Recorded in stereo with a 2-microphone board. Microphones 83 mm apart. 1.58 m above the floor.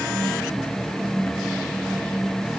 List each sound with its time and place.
Only background noise.